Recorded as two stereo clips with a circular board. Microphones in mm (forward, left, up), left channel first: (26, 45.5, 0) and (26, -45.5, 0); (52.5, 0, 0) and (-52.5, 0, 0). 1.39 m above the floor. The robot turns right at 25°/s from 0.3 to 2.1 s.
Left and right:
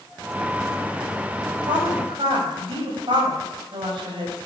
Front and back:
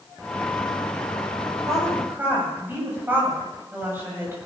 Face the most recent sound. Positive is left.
turn(degrees=-110)